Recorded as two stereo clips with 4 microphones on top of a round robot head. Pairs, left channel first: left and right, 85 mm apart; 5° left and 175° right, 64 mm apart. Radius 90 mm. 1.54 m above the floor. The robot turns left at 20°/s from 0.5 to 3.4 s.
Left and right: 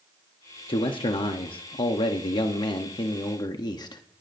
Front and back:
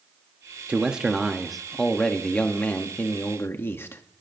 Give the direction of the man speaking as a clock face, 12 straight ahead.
8 o'clock.